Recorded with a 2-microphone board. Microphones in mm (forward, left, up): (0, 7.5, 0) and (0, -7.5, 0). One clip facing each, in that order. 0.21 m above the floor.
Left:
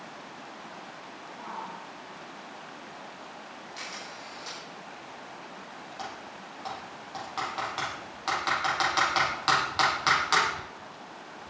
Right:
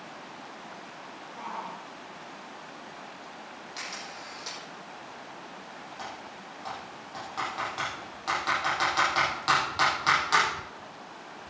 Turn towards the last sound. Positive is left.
turn(degrees=10)  # may be behind; listen again after turning